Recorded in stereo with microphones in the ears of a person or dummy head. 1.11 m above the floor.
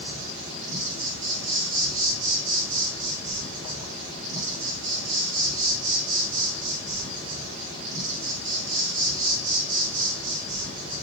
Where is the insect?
75° right (ahead or behind), 1.0 m.